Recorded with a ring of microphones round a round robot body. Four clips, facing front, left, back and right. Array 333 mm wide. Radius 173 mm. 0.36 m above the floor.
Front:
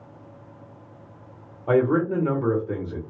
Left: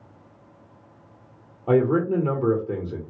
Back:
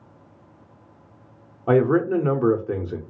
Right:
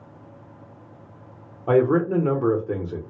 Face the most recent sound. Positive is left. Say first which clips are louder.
# right 1 dB, back 2 dB
turn(degrees=-155)